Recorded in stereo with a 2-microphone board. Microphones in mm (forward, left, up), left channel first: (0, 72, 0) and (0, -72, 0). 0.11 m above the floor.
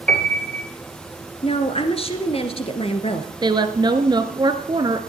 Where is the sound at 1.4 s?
45° left (ahead or behind), 1.7 m.